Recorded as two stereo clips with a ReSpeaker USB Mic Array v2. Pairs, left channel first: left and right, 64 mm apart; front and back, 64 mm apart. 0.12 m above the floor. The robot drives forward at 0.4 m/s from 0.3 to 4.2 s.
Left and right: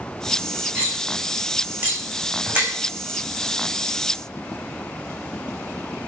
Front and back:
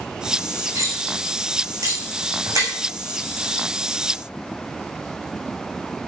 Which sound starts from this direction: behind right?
Cutlery clinking, at 0.8 s.